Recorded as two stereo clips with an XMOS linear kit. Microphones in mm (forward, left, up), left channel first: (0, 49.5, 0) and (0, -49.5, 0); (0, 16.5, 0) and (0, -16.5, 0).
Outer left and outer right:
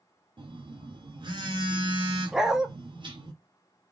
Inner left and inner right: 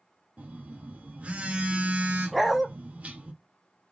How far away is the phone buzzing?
About 0.8 m.